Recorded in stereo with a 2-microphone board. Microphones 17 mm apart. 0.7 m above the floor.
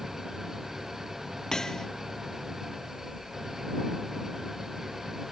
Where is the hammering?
30° left (ahead or behind).